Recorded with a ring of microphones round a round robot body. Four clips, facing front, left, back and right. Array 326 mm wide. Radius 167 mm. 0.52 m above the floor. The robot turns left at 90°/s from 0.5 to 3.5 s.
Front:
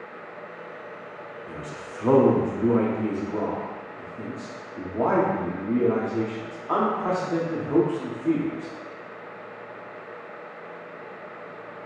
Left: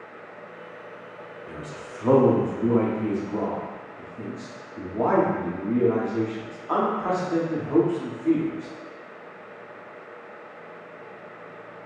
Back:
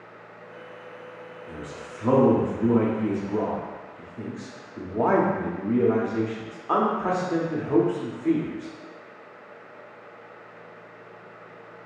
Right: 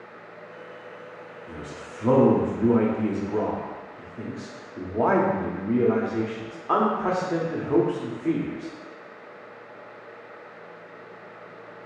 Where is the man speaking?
65° left, 0.8 m; by 8.7 s 120° right, 0.8 m.